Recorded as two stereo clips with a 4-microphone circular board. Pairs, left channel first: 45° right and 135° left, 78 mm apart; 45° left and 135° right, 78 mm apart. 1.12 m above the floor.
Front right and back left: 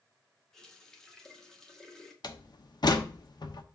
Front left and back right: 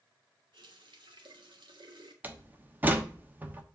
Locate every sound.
0.5 s a running tap: 130° right, 1.6 m
2.2 s a door slam: 70° right, 1.1 m